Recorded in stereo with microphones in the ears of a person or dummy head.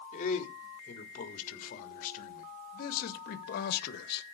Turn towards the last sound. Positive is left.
turn(degrees=65)  # may be behind; listen again after turning